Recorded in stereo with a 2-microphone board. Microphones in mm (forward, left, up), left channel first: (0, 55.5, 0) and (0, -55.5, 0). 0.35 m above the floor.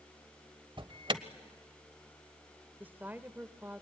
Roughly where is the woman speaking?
Centre.